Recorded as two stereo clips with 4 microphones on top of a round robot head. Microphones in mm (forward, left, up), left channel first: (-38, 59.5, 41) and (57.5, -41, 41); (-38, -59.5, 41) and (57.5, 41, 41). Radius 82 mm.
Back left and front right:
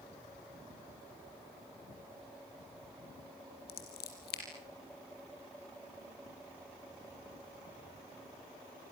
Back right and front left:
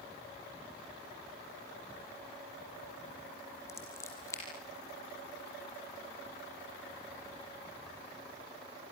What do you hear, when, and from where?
3.7 s scissors: 155° left, 7 m